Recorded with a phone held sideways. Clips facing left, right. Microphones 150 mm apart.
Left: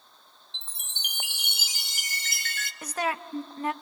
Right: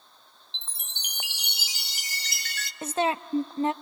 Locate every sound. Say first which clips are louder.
0.5 s a chime: right 1 dB; 50° left (ahead or behind), 0.9 m
2.8 s a woman speaking: right 4 dB; 25° right (ahead or behind), 0.6 m